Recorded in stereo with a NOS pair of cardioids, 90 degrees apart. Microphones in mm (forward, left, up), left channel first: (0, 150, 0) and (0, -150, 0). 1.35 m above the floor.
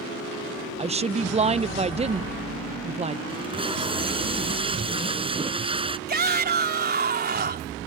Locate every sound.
0.8 s a woman speaking: 20° right
3.3 s tape being pulled: 15° right
6.1 s a shout: 30° right